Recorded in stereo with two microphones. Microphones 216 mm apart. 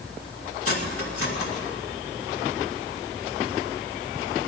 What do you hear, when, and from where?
0.7 s cutlery clinking: 75° left (ahead or behind), 2 m